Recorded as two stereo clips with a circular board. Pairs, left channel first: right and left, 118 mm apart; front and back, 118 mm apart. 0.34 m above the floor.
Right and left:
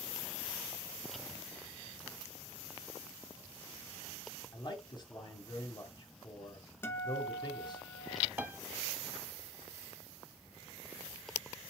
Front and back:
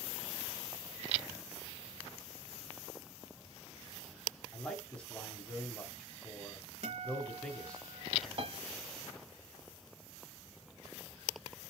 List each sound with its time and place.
4.5 s a man speaking: 75° right, 1.7 m
6.8 s a guitar: 160° right, 1.2 m
8.4 s a piano: 165° left, 0.7 m